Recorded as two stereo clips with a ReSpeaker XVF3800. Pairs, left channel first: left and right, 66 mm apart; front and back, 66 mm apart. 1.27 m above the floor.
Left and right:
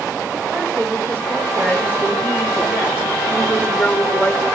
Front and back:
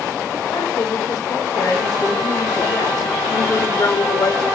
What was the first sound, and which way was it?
A woman speaking, 35° right.